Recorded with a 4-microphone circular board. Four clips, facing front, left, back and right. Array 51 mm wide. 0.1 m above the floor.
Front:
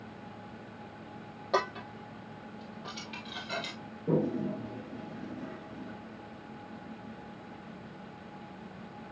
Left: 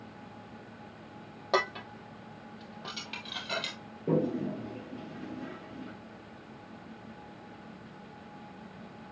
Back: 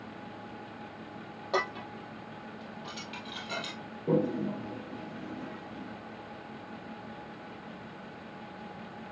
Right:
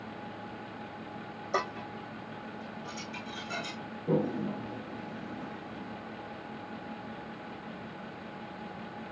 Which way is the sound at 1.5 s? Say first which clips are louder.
Left 3 dB, front 1 dB; 90° left.